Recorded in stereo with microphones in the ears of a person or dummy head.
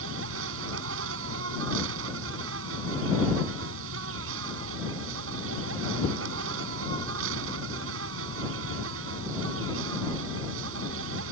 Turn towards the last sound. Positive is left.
turn(degrees=-85)